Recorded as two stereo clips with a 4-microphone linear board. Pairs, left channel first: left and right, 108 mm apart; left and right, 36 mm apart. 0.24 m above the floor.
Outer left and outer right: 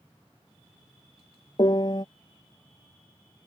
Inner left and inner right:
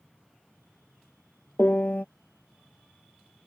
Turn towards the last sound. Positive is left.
turn(degrees=45)  # may be behind; listen again after turning